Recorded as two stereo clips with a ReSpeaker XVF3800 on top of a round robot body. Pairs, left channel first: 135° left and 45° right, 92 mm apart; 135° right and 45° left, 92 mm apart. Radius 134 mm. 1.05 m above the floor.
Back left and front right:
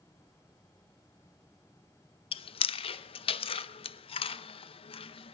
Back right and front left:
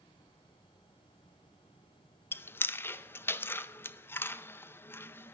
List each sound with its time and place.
2.3 s chewing: 155° left, 0.5 m